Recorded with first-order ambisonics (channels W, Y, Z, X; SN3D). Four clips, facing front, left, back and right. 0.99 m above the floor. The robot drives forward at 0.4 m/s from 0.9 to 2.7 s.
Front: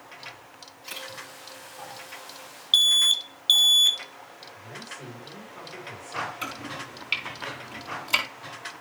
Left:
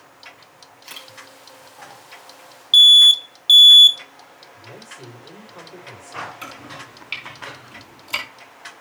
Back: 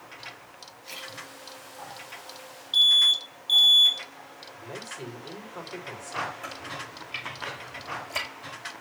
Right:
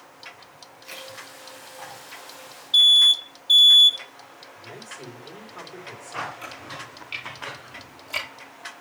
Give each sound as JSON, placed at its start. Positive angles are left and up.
{"t": 0.8, "sound": "a camera shutter", "azimuth_deg": 70, "distance_m": 5.0}
{"t": 2.7, "sound": "an alarm", "azimuth_deg": 55, "distance_m": 0.6}
{"t": 4.5, "sound": "a man speaking", "azimuth_deg": 145, "distance_m": 4.5}
{"t": 6.4, "sound": "chopping", "azimuth_deg": 30, "distance_m": 4.5}